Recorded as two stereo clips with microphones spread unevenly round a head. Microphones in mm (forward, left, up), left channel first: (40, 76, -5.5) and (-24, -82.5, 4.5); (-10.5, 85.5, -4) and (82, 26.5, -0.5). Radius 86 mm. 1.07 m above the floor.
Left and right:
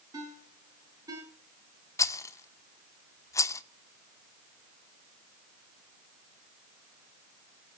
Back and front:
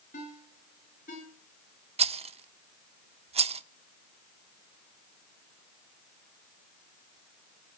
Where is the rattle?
5° right, 1.3 m.